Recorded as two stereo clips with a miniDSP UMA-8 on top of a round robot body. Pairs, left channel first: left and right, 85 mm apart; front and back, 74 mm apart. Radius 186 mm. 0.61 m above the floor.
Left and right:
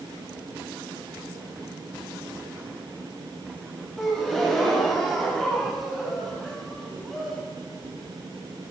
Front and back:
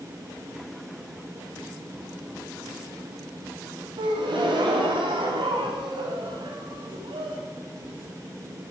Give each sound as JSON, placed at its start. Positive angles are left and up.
{"t": 4.0, "sound": "a gasp", "azimuth_deg": 175, "distance_m": 1.0}